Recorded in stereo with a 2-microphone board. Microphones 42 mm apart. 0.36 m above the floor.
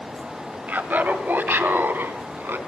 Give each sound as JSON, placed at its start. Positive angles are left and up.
{"t": 0.7, "sound": "laughter", "side_deg": -45, "distance_m": 1.8}